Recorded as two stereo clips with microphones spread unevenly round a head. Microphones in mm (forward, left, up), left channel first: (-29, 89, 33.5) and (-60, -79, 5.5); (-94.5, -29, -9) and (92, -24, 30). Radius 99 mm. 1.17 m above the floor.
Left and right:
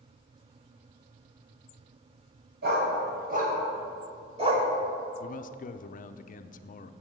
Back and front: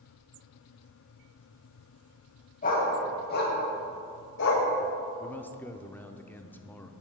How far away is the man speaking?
About 0.5 m.